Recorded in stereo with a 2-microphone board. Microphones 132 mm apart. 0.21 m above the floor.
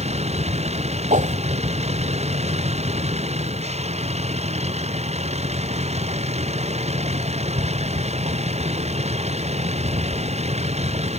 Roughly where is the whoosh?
Right.